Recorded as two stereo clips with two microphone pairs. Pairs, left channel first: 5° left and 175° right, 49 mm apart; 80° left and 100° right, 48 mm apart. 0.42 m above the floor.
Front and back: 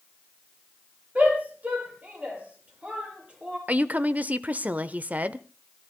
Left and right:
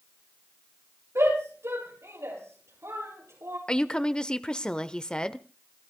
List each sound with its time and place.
1.1 s a shout: 120° right, 9 m; by 3.6 s 110° right, 10 m
3.7 s a woman speaking: 145° left, 0.9 m